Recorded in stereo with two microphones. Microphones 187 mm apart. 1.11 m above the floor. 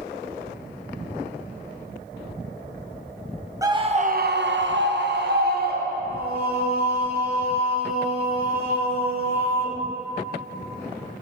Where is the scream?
20° right (ahead or behind), 0.9 m; by 6.3 s 50° right (ahead or behind), 2.5 m.